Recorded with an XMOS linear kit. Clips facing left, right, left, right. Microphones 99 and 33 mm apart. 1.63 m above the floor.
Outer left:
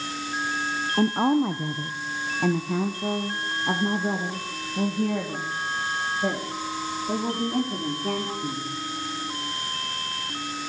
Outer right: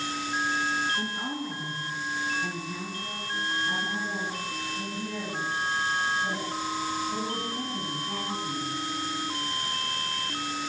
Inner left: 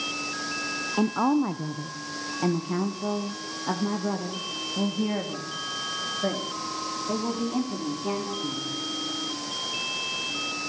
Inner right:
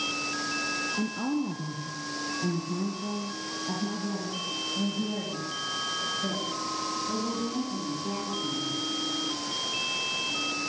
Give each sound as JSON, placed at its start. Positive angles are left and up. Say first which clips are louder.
{"t": 1.0, "sound": "a woman speaking", "louder": "outer left 12 dB, inner left 6 dB", "side_deg": 80, "distance_m": 1.2}